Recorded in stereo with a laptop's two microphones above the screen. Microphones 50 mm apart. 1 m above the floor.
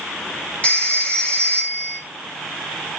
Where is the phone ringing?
25° left (ahead or behind), 1.6 m.